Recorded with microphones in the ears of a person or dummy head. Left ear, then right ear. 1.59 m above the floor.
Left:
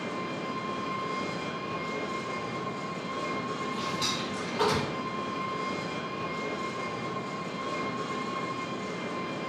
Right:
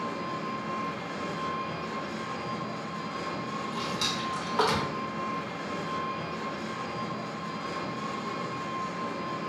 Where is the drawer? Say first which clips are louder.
Right 1 dB; 65° right (ahead or behind), 1.4 m.